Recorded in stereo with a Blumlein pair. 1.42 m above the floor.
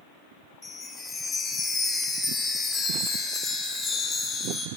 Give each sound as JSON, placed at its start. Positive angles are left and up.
{"t": 0.6, "sound": "a chime", "azimuth_deg": 20, "distance_m": 1.2}